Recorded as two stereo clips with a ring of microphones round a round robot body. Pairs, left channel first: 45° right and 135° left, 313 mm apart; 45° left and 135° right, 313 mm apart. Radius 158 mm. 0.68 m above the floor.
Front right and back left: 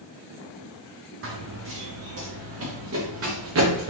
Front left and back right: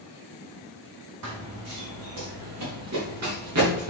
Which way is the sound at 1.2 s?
175° right.